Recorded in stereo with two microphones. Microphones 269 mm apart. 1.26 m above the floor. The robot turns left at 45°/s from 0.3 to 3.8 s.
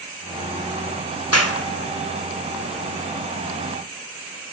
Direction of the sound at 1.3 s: 75° left (ahead or behind).